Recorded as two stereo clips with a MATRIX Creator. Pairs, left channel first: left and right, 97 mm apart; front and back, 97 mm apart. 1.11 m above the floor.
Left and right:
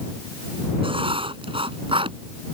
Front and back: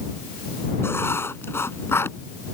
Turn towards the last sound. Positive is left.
turn(degrees=-65)